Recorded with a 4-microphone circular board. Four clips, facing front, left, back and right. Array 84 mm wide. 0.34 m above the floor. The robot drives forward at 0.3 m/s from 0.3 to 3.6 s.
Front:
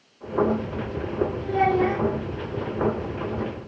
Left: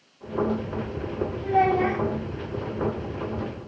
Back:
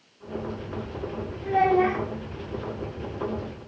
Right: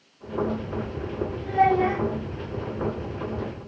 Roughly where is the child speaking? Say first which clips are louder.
Right 1 dB, back 2 dB; behind left.